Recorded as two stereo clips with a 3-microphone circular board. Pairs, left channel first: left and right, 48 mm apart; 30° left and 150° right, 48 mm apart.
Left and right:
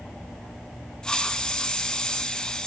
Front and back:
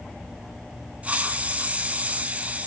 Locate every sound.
1.0 s a hiss: 160° left, 0.9 m